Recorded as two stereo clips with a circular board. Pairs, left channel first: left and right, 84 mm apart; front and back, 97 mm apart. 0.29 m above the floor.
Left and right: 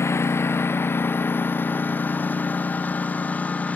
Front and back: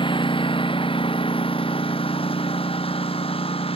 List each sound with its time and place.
0.0 s a lawn mower: 30° left; by 3.8 s 15° left